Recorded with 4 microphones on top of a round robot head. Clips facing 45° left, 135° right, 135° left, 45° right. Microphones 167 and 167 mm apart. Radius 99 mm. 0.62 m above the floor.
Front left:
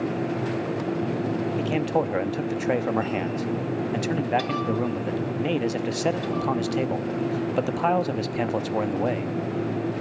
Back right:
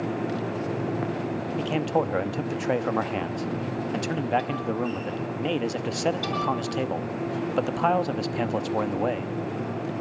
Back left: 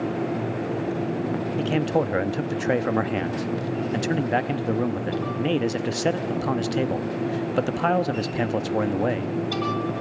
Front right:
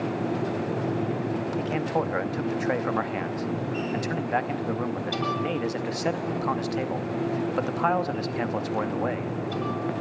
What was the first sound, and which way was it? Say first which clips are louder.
A man speaking: back right 1 dB, back left 6 dB; 125° left.